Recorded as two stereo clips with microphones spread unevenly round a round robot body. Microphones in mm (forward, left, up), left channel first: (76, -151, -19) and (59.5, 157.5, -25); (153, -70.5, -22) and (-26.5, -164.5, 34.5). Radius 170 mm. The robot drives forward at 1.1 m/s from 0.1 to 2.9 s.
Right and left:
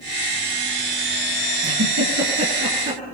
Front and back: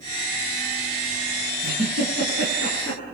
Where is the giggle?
145° left, 6.5 m; by 3.0 s 150° left, 8 m.